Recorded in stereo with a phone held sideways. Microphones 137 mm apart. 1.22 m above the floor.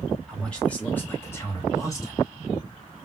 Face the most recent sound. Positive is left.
turn(degrees=30)  # may be behind; listen again after turning